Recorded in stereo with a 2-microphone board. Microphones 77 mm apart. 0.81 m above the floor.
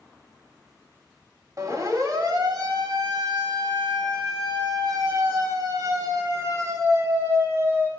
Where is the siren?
50° right (ahead or behind), 4 m; by 7.9 s 35° right (ahead or behind), 6 m.